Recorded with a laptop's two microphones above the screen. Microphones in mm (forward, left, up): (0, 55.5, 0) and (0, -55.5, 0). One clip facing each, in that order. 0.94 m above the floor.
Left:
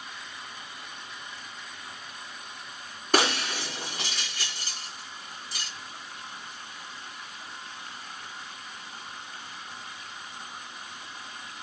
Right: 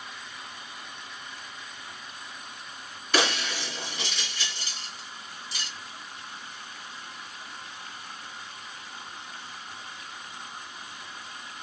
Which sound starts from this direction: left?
Breaking glass, at 3.1 s.